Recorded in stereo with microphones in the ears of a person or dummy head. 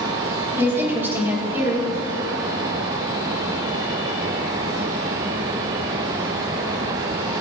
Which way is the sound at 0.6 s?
10° right (ahead or behind).